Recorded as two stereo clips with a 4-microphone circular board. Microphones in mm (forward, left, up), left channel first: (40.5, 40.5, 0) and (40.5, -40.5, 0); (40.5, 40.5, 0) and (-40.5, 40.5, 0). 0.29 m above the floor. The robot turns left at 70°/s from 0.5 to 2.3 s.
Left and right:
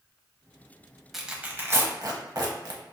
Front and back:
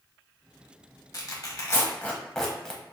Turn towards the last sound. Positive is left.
turn(degrees=-80)